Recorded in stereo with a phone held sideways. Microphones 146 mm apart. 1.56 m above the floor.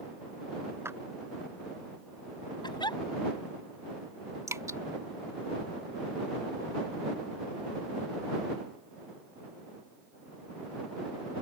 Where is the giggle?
30° left (ahead or behind).